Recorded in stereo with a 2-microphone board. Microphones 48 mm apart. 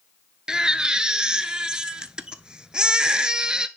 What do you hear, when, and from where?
0.5 s a baby crying: 15° right (ahead or behind), 0.7 m